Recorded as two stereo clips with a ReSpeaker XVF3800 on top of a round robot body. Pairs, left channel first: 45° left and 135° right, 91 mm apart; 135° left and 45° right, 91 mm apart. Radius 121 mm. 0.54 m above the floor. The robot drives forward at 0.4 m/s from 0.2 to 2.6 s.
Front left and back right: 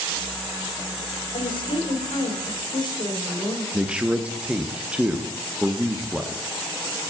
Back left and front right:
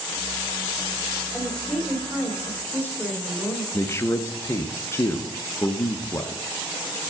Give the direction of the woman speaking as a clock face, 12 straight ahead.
10 o'clock.